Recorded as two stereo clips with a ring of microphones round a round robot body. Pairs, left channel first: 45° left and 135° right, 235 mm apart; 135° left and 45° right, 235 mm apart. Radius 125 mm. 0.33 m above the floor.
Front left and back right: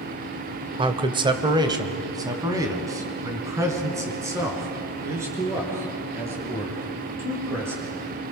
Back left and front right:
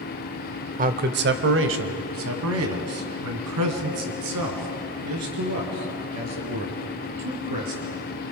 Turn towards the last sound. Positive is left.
turn(degrees=-55)